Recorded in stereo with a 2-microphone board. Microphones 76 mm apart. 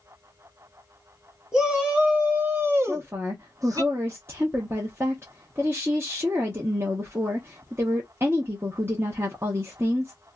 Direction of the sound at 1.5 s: 10° right (ahead or behind).